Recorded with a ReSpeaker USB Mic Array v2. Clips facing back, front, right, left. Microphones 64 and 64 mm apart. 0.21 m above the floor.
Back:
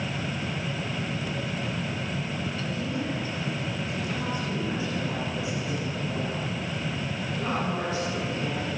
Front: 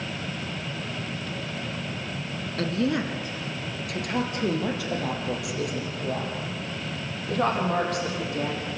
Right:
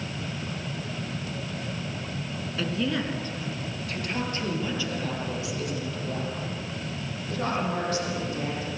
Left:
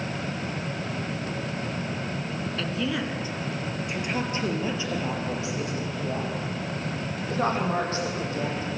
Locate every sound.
2.6 s a woman speaking: 5° right, 2.5 m; by 8.7 s 30° left, 10.5 m